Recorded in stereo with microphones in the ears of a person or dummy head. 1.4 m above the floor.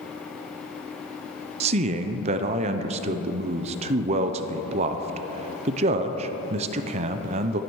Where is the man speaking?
35° right (ahead or behind), 0.6 m.